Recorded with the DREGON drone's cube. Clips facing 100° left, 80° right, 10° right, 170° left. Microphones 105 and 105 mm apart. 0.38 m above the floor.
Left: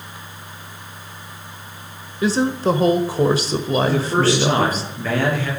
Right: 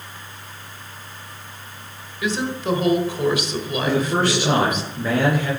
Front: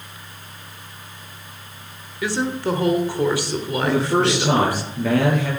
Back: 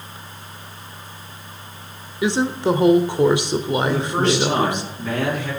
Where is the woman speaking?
115° left, 1.2 m.